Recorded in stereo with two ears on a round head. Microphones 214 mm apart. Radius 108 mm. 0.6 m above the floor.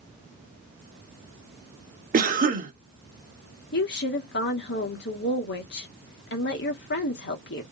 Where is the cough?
40° right (ahead or behind), 1.1 m.